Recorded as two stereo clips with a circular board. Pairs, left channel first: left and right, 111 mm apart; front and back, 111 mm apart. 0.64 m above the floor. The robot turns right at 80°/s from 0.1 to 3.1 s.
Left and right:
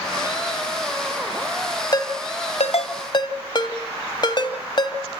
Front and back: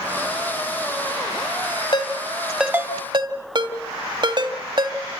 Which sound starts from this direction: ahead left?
A ringtone, at 1.9 s.